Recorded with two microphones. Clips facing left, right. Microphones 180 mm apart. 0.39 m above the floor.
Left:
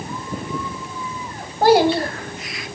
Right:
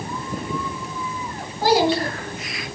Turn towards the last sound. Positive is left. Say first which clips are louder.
# left 4 dB
turn(degrees=60)  # may be behind; listen again after turning